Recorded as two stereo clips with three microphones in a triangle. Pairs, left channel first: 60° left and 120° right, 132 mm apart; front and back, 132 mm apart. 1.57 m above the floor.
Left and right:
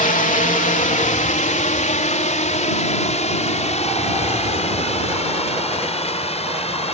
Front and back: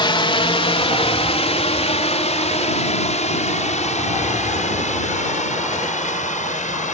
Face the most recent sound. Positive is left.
turn(degrees=20)